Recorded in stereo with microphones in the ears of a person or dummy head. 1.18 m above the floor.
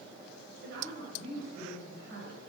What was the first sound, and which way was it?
A woman speaking, 70° right (ahead or behind).